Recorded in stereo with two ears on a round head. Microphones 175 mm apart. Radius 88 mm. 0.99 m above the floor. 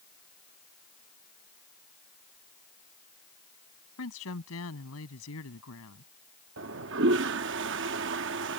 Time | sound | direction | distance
4.0 | a woman speaking | 85° left | ?
6.6 | a toilet flushing | 60° right (ahead or behind) | ?